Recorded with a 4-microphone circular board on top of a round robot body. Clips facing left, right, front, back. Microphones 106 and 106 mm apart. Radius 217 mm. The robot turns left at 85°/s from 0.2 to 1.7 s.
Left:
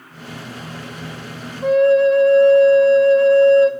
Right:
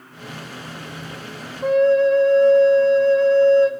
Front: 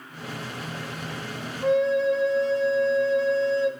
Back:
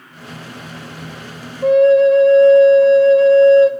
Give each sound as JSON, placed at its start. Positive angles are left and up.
{"t": 1.6, "sound": "a flute", "azimuth_deg": 180, "distance_m": 0.5}